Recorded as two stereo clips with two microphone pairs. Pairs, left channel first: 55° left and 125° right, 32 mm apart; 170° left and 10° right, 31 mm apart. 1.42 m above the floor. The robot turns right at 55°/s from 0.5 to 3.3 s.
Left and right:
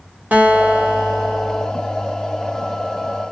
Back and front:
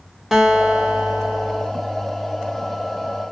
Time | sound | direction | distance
0.3 | a guitar | 100° right | 1.0 m